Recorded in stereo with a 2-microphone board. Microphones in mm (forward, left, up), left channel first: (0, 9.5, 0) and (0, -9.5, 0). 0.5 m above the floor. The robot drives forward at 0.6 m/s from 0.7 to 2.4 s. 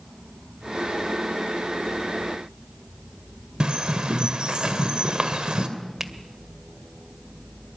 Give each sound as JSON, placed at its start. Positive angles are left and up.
{"t": 3.6, "sound": "a bird", "side_deg": -50, "distance_m": 2.5}
{"t": 6.0, "sound": "a finger snap", "side_deg": -20, "distance_m": 1.6}